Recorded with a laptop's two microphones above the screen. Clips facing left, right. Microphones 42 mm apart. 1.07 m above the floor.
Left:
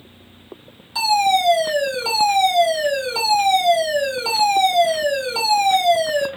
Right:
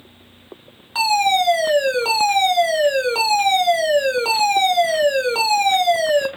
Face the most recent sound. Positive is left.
turn(degrees=-40)  # may be behind; listen again after turning